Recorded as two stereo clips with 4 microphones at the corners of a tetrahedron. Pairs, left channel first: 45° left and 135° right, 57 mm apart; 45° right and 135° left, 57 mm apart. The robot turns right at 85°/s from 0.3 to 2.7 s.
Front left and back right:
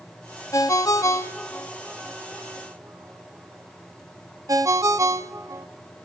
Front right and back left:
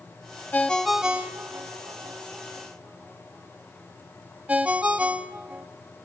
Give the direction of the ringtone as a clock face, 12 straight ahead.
11 o'clock.